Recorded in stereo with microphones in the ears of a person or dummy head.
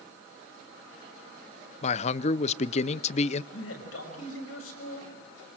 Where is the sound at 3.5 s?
85° left, 6 m.